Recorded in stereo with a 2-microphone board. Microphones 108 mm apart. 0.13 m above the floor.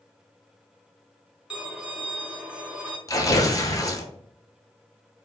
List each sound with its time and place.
1.5 s a violin: 10° right (ahead or behind), 0.9 m
3.1 s tearing paper: 35° left (ahead or behind), 0.7 m